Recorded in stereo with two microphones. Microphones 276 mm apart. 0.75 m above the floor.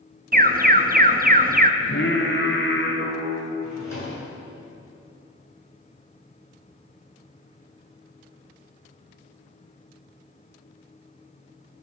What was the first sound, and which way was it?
An alarm, 30° right (ahead or behind).